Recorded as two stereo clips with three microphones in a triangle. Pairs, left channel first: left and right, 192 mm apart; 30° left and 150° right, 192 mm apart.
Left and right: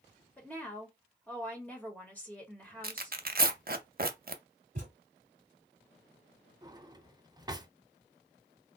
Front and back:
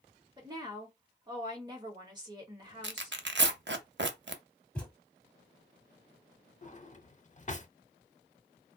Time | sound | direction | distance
0.4 | a woman speaking | 165° left | 1.3 m
2.8 | tearing paper | 130° right | 0.5 m
4.8 | a thud | 55° right | 0.9 m
6.6 | a drawer | 25° right | 0.6 m